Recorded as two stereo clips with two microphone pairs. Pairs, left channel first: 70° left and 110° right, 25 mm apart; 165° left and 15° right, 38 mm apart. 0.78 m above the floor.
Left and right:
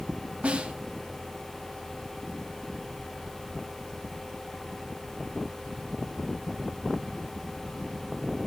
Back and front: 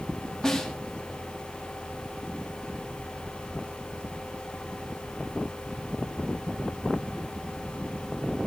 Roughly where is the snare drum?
Behind right.